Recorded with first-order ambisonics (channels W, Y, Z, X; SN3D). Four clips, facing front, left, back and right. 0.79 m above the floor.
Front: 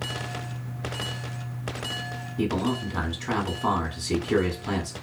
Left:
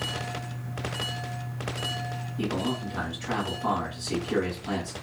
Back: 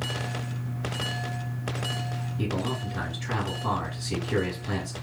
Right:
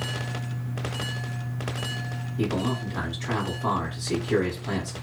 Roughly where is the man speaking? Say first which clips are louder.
Right 2 dB, front 5 dB; ahead.